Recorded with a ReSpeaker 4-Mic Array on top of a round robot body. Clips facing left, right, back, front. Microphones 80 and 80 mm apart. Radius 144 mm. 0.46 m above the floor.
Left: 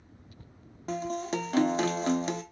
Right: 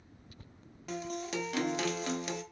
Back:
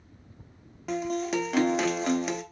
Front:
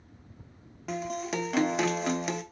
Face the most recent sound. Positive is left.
turn(degrees=90)